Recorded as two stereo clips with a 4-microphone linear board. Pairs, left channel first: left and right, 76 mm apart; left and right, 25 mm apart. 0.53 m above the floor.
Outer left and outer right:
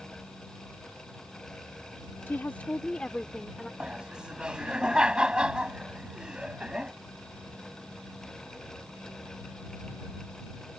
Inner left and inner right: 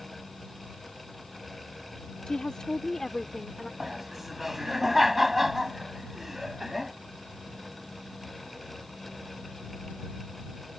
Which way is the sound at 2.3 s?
30° left (ahead or behind).